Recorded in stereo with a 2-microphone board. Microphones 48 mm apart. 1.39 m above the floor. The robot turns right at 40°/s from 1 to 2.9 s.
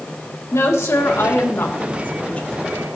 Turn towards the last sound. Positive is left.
turn(degrees=170)